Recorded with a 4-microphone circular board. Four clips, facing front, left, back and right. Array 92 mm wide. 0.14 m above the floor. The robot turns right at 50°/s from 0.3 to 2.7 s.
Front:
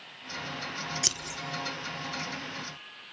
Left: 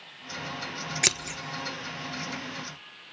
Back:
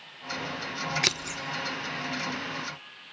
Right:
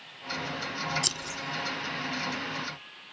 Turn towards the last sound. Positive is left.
turn(degrees=-155)